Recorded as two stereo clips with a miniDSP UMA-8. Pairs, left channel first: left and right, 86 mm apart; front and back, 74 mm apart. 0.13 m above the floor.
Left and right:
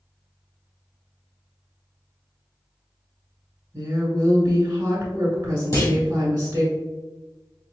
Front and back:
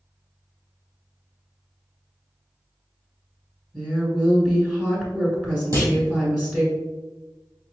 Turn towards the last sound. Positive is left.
turn(degrees=140)